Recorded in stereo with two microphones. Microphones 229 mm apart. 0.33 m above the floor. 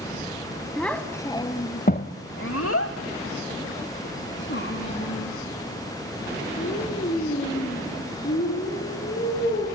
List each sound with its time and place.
0.8 s a child speaking: centre (ahead or behind), 1.3 m; by 9.7 s 40° left (ahead or behind), 6 m